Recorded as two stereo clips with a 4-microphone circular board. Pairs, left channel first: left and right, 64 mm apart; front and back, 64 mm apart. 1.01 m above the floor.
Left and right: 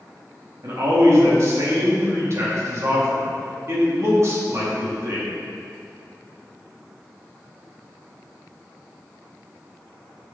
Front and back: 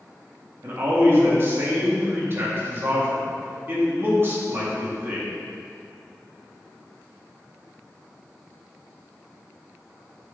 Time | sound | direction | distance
0.6 | a man speaking | 130° right | 2 m